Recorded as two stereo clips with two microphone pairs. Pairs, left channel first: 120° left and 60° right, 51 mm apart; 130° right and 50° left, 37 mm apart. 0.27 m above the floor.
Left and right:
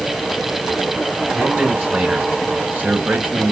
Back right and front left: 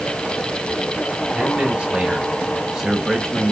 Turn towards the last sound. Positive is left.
turn(degrees=-50)